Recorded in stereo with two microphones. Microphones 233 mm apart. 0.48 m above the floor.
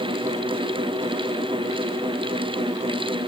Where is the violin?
I don't hear a violin.